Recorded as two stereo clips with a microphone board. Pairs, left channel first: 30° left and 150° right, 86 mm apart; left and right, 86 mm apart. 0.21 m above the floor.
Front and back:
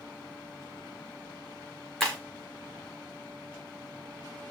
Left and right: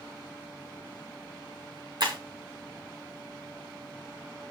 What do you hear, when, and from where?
2.0 s breaking glass: 55° right, 5 m